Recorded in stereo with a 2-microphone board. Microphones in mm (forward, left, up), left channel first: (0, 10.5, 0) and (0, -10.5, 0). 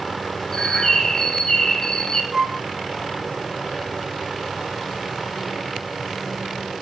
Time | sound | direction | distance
0.5 | a bird | 30° left (ahead or behind) | 0.7 m
2.3 | a flute | 35° right (ahead or behind) | 1.5 m